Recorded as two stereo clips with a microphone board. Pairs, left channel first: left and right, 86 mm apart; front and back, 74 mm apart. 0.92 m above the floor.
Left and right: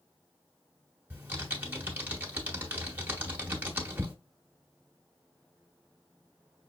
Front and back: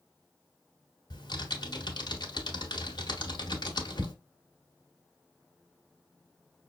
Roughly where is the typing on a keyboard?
Ahead.